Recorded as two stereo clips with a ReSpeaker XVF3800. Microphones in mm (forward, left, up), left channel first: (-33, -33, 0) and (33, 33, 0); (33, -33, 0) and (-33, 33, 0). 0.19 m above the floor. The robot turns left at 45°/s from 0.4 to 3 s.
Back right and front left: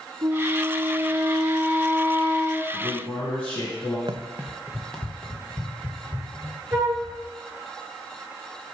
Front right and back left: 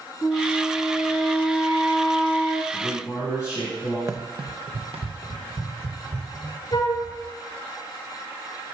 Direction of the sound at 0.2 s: 5° left.